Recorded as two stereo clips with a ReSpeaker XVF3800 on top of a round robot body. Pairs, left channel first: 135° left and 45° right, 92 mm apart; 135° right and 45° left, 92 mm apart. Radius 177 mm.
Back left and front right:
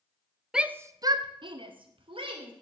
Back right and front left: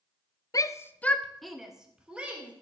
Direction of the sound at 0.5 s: 125° right.